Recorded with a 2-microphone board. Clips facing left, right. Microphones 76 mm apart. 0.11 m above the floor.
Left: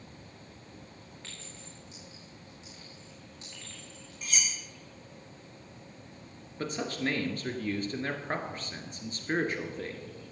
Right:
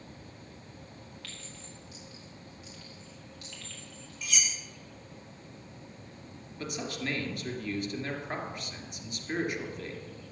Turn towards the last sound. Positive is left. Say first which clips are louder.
# left 4 dB
turn(degrees=40)  # may be behind; listen again after turning